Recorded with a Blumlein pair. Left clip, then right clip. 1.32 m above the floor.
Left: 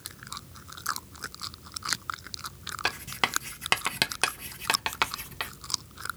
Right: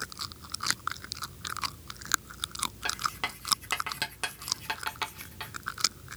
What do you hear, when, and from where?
2.9 s writing: 60° left, 0.5 m